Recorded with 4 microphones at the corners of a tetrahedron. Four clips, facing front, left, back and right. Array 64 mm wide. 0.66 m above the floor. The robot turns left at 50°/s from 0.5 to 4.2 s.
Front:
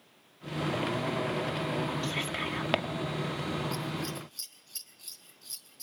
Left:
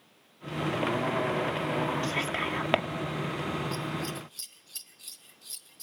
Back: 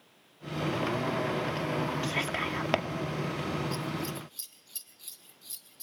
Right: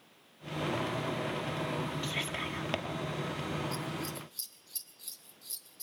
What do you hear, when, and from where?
2.0 s whispering: 140° left, 1.5 m; by 2.9 s 100° left, 1.5 m
3.7 s scissors: 100° left, 1.4 m; by 5.8 s 75° left, 1.4 m